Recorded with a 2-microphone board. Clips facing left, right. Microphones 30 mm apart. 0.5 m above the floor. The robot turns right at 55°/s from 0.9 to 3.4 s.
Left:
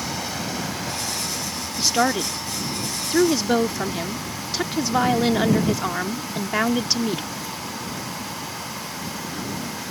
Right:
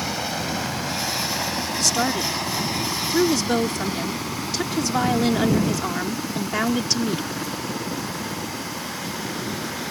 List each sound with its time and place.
0.0 s a helicopter: 20° right (ahead or behind); by 9.9 s 55° right (ahead or behind)
1.8 s a woman speaking: 15° left (ahead or behind); by 7.3 s 10° left (ahead or behind)